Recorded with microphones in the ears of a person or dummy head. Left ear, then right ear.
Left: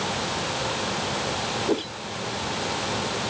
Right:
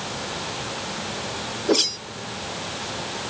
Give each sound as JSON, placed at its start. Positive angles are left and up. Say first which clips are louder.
{"t": 1.7, "sound": "a whoosh", "louder": "right 6 dB", "side_deg": -45}